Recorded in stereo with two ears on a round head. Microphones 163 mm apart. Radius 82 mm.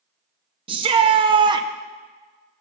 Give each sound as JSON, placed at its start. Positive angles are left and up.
{"t": 0.7, "sound": "a shout", "side_deg": -25, "distance_m": 0.7}